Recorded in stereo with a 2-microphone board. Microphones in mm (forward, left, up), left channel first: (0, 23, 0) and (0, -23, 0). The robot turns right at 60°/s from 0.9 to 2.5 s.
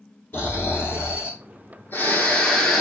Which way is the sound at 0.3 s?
60° left.